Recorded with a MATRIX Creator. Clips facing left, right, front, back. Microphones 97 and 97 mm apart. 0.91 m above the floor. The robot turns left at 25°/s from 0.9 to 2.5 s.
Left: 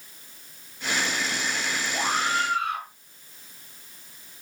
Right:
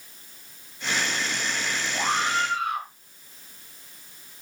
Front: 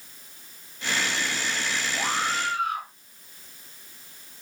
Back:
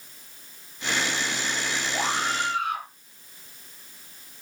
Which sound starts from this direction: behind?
A scream, at 1.9 s.